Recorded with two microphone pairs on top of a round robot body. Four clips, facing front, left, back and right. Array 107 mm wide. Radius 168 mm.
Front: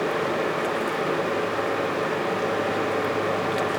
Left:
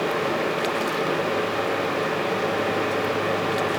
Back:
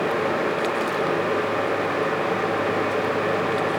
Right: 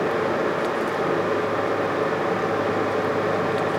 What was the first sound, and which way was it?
Only background noise.